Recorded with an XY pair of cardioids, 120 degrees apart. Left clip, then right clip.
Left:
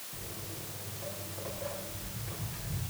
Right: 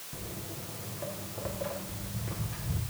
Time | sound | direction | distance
0.1 | footsteps | 45° right | 6 m